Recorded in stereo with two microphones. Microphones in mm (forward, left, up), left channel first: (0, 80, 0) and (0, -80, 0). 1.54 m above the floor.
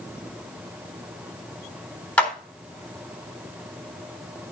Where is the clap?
10° left (ahead or behind), 3.5 m.